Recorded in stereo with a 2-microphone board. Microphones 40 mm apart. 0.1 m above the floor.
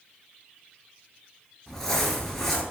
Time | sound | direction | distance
1.7 | crumpling | 10° left (ahead or behind) | 0.7 m